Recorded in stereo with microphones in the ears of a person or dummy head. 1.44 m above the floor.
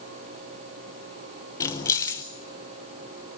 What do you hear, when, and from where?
1.6 s keys jangling: 20° left (ahead or behind), 0.6 m